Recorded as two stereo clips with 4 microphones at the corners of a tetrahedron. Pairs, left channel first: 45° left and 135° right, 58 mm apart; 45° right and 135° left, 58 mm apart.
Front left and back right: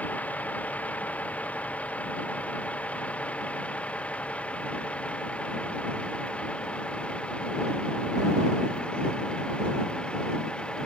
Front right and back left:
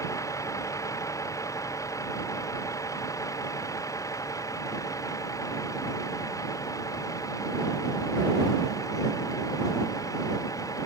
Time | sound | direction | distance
0.0 | a vehicle | 20° right | ?